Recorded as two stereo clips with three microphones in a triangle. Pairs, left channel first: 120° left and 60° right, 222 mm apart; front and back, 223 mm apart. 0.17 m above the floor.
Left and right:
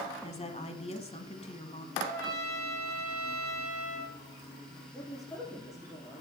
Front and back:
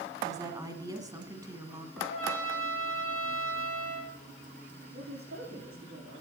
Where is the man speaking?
165° right, 7.5 m.